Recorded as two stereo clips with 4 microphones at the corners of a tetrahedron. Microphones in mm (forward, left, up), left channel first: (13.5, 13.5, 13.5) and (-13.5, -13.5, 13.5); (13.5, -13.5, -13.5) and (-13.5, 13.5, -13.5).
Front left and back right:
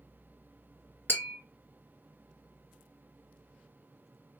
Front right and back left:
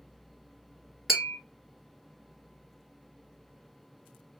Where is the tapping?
55° left, 3 m.